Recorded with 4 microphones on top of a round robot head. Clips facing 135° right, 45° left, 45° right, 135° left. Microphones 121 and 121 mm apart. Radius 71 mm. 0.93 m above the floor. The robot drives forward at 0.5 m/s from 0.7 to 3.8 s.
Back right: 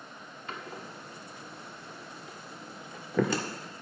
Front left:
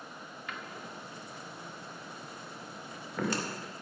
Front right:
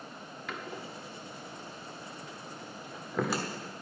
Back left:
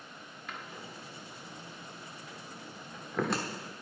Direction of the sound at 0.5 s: 75° right.